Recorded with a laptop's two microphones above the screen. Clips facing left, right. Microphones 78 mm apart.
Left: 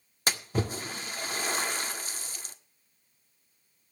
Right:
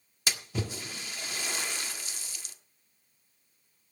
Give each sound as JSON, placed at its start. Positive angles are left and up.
{"t": 0.3, "sound": "a splash", "side_deg": 40, "distance_m": 1.6}